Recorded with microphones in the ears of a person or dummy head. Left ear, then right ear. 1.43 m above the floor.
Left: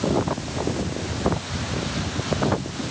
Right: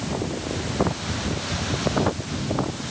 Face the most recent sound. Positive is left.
No sound to turn to.